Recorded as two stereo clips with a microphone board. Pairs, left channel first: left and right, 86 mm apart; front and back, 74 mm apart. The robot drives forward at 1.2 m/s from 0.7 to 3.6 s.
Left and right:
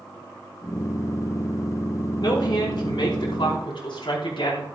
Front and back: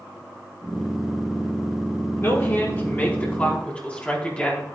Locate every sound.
2.2 s a woman speaking: 55° left, 5 m; by 4.7 s 70° left, 4.5 m